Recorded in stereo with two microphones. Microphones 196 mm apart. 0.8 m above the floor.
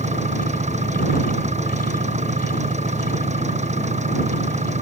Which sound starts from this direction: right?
An engine running, at 0.0 s.